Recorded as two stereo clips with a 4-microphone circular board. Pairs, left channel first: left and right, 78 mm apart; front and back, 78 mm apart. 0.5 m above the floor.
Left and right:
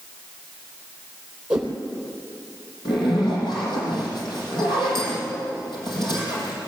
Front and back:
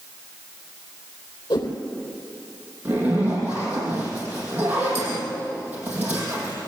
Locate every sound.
1.5 s a whoosh: 15° right, 3.5 m
2.9 s a zipper: 110° left, 6 m